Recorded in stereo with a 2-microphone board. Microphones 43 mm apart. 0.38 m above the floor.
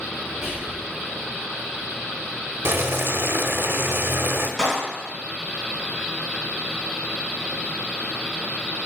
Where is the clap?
10° left (ahead or behind), 2.5 m.